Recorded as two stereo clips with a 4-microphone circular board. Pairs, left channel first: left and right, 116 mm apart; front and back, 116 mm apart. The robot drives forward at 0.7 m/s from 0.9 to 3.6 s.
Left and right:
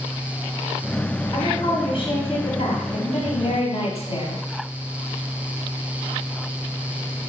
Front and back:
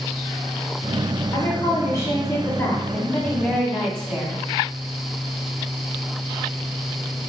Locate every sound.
1.3 s a woman speaking: 55° left, 2 m; by 4.4 s 105° left, 1.9 m